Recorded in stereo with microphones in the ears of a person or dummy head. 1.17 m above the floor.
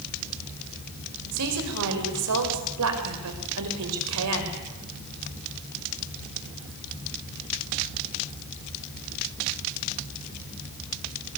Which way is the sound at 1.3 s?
75° right (ahead or behind).